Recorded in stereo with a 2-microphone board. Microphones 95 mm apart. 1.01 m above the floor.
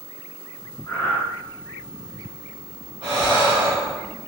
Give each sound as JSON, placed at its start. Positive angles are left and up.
{"t": 0.9, "sound": "breathing", "side_deg": 25, "distance_m": 1.4}
{"t": 3.0, "sound": "breathing", "side_deg": -65, "distance_m": 1.4}